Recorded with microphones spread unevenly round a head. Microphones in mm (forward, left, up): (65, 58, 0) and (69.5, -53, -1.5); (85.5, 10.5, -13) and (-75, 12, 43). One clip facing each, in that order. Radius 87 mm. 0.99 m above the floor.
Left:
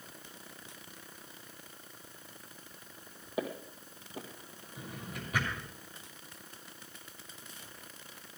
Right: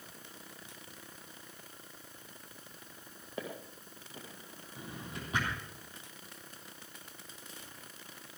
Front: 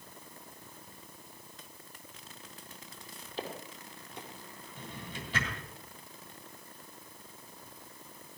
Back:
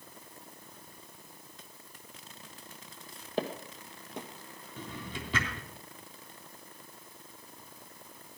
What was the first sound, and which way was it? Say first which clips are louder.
Footsteps: left 5 dB, back 6 dB; 175° left.